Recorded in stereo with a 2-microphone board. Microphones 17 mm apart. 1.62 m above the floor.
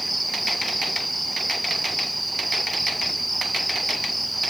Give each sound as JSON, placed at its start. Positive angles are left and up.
{"t": 0.0, "sound": "an insect", "side_deg": 0}